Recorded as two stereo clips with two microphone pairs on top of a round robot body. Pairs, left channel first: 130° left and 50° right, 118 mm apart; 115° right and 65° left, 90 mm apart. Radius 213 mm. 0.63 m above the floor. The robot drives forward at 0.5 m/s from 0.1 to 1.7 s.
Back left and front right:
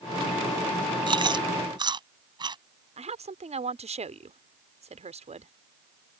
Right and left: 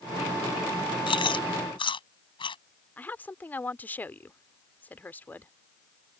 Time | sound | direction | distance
1.1 | chewing | 95° right | ?
3.0 | a woman speaking | 45° right | ?